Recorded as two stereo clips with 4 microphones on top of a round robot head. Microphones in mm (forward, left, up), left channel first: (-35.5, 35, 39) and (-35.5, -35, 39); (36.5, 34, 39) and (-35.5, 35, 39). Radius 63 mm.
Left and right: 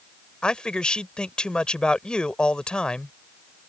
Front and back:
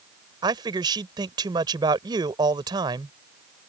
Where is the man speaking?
165° left.